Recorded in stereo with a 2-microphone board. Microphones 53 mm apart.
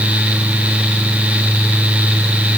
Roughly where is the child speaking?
I don't hear a child speaking.